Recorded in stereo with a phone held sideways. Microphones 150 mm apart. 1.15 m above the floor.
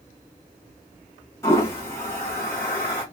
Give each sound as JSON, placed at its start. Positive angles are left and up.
{"t": 1.4, "sound": "a toilet flushing", "side_deg": 15, "distance_m": 1.8}